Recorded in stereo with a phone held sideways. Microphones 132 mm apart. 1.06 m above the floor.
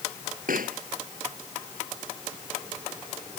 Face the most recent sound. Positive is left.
turn(degrees=-85)